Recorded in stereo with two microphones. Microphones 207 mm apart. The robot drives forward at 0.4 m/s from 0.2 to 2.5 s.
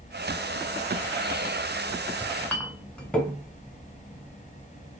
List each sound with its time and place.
2.2 s a clink: 5° left (ahead or behind), 1.1 m